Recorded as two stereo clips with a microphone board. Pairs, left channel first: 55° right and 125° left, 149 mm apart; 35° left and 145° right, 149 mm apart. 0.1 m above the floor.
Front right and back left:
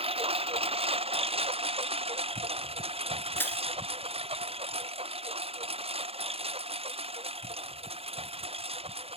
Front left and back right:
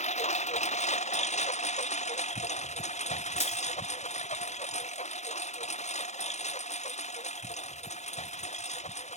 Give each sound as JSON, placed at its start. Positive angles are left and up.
{"t": 0.0, "sound": "a lawn mower", "azimuth_deg": 75}
{"t": 3.4, "sound": "crushing", "azimuth_deg": 15}